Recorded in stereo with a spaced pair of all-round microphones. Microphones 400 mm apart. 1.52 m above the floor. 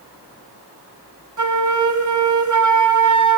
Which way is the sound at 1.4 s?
45° right (ahead or behind).